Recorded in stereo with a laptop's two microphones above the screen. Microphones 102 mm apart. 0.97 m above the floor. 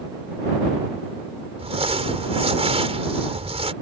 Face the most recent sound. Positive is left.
turn(degrees=-75)  # may be behind; listen again after turning